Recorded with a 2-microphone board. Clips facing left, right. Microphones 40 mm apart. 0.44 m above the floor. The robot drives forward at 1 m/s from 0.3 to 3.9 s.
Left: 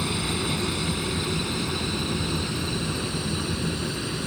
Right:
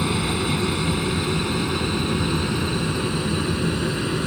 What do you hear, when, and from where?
0.0 s an aircraft: 20° right (ahead or behind); by 4.3 s 30° right (ahead or behind)